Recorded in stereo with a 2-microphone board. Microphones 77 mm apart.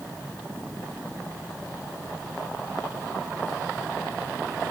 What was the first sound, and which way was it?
Only background noise.